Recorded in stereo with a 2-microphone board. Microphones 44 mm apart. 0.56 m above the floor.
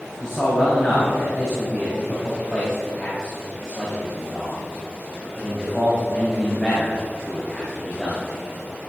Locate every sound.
0.2 s a man speaking: 15° left (ahead or behind), 3.5 m